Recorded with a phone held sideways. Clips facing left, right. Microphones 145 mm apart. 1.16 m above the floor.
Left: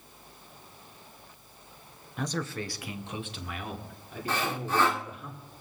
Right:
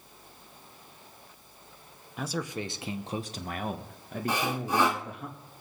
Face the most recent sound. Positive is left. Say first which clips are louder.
# right 1 dB
turn(degrees=-15)  # may be behind; listen again after turning